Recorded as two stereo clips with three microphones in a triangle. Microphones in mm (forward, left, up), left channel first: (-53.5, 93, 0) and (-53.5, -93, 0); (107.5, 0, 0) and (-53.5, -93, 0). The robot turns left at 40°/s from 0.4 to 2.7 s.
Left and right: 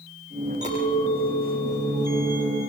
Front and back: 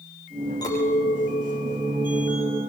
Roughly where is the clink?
Ahead right.